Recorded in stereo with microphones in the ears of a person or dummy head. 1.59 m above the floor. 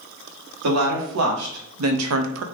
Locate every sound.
0.6 s a woman speaking: 70° right (ahead or behind), 1.7 m; by 2.4 s 75° right (ahead or behind), 0.5 m